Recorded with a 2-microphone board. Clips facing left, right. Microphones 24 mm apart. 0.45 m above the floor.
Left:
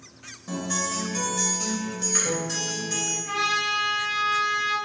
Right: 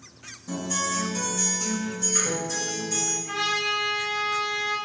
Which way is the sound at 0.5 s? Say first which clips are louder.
Even; 40° left (ahead or behind).